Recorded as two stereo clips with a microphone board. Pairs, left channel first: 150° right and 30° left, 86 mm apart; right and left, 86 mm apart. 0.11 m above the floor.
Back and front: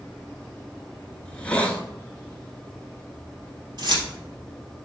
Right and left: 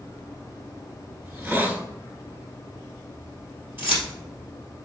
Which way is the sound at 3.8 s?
30° left.